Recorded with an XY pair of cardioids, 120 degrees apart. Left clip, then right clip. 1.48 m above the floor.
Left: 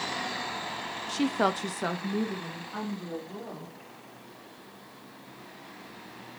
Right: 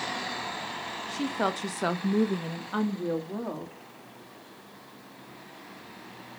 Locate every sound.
1.1 s a woman speaking: 35° left, 1.4 m; by 3.8 s 75° right, 3 m